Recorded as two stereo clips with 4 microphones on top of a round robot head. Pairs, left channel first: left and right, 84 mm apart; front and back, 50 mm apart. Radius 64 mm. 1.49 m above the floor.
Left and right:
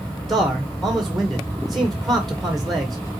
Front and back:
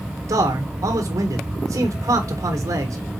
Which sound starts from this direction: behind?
A man speaking, at 0.3 s.